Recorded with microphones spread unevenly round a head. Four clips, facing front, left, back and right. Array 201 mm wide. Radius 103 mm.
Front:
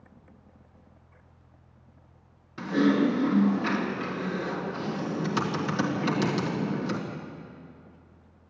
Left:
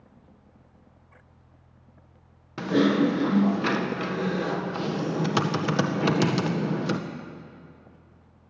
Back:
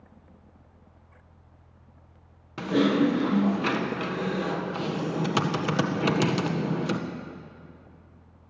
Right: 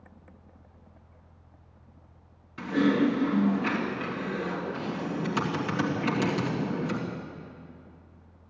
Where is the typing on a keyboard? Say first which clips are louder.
Left 3 dB, back 1 dB; 120° left, 1.9 m.